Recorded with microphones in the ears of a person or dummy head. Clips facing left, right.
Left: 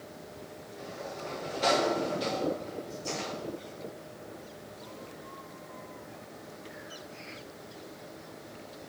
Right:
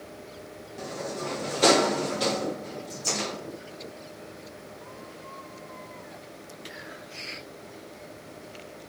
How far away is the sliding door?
About 0.9 m.